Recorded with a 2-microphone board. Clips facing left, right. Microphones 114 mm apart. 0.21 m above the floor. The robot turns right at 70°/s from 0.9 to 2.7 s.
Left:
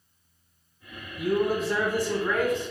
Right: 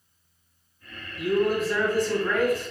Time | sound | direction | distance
1.2 | a man speaking | 25° left (ahead or behind) | 1.5 m